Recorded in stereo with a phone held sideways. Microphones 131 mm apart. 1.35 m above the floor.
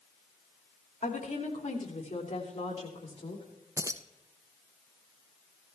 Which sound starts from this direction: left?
A woman speaking, at 1.0 s.